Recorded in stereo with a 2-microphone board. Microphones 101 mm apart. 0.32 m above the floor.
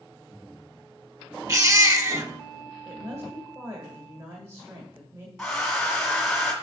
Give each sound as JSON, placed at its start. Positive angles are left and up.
{"t": 1.5, "sound": "a baby crying", "side_deg": -35, "distance_m": 0.6}
{"t": 2.9, "sound": "a woman speaking", "side_deg": -35, "distance_m": 1.4}
{"t": 5.4, "sound": "a hair dryer", "side_deg": 5, "distance_m": 2.0}